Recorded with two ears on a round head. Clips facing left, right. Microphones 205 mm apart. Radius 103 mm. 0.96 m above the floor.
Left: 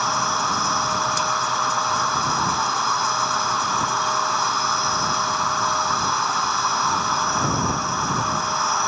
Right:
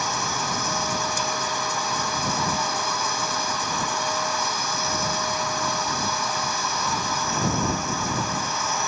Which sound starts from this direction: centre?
An insect, at 0.0 s.